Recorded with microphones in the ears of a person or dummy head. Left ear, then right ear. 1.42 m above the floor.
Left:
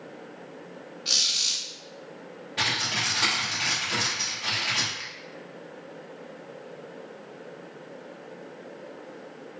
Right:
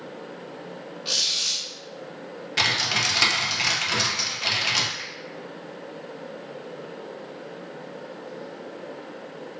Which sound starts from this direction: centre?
A squeak, at 1.1 s.